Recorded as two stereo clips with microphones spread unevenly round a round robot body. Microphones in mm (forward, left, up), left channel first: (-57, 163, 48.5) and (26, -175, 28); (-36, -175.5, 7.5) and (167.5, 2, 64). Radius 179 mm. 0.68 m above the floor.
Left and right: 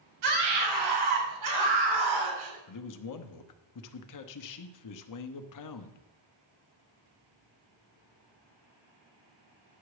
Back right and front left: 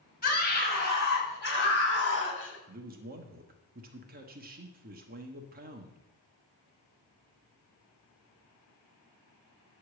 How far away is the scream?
About 5 m.